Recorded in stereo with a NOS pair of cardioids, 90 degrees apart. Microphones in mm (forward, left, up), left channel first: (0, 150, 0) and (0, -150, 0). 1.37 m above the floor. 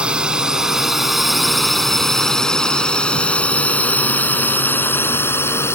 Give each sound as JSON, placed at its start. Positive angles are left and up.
{"t": 0.0, "sound": "a drone", "azimuth_deg": -5}